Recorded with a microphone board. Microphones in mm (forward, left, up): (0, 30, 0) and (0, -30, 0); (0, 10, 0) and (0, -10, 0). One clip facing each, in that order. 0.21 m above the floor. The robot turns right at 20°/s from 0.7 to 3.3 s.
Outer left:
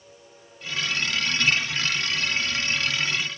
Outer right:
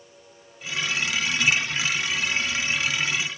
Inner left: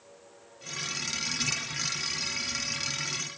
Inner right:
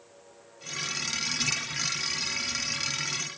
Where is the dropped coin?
No dropped coin in this recording.